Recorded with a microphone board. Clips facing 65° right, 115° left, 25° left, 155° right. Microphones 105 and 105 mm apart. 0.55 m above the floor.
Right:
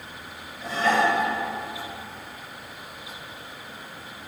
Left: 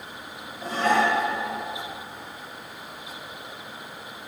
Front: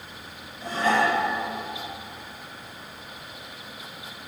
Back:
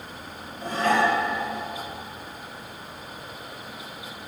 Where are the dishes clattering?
160° left, 5.5 m.